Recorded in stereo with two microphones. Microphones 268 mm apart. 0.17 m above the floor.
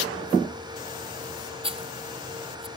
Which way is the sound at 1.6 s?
20° right (ahead or behind).